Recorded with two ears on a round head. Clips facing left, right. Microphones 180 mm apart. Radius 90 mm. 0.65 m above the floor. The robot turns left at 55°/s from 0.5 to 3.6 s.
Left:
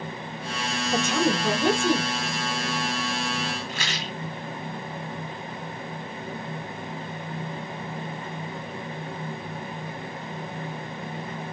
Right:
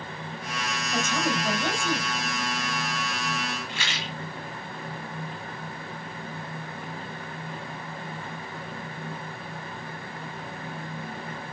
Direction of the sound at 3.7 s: 35° left (ahead or behind).